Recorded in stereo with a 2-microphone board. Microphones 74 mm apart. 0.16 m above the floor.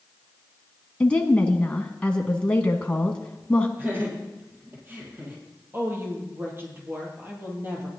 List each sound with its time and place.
1.0 s a woman speaking: 15° left (ahead or behind), 1.1 m
3.8 s laughter: 30° right (ahead or behind), 4.5 m
5.7 s a woman speaking: 35° right (ahead or behind), 3.5 m